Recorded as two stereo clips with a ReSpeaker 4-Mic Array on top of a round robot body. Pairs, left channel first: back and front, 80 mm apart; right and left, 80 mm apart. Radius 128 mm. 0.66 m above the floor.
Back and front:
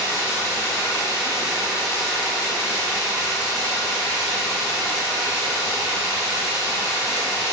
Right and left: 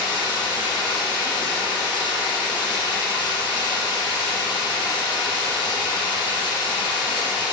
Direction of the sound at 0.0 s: 125° right.